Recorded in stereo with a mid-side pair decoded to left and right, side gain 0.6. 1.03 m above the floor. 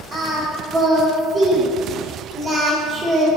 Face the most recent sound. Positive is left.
turn(degrees=-40)